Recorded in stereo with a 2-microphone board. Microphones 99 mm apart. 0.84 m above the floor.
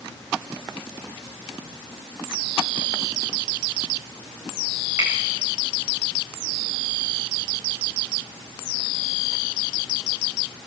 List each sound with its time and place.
5.0 s a finger snap: 25° right (ahead or behind), 4.5 m